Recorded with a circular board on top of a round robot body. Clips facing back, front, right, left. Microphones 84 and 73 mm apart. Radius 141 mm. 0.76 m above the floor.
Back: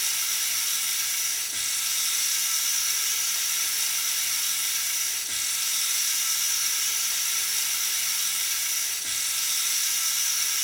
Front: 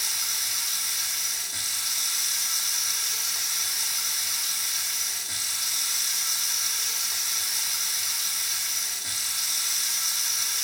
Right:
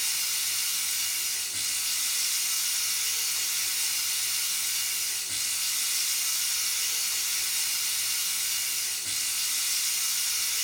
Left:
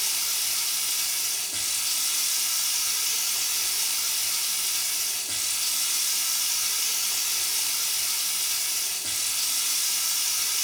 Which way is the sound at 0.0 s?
80° left.